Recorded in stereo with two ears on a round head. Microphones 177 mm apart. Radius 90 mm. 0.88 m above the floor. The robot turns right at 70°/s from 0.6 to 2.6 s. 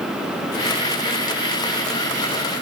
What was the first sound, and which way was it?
Only background noise.